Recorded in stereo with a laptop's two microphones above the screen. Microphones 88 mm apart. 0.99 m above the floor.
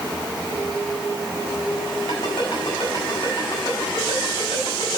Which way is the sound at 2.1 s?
75° left (ahead or behind).